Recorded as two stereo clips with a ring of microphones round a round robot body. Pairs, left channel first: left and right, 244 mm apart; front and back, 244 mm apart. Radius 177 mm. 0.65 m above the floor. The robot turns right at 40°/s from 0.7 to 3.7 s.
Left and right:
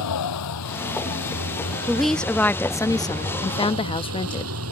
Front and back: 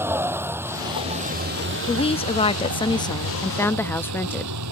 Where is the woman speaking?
5° right; by 4.5 s 70° left.